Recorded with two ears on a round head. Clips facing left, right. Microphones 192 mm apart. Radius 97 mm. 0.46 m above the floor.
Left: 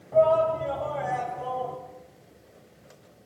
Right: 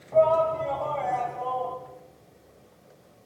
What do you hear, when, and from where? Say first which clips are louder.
0.1 s a shout: even; 5° left (ahead or behind), 4 m; by 1.8 s 25° left (ahead or behind), 4 m